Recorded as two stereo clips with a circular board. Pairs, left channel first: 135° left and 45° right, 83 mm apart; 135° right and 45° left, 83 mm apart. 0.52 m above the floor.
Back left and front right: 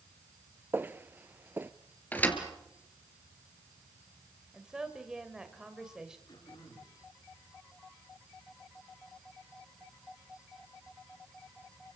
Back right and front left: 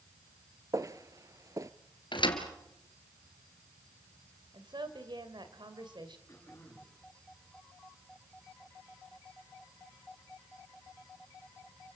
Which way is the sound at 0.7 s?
15° left.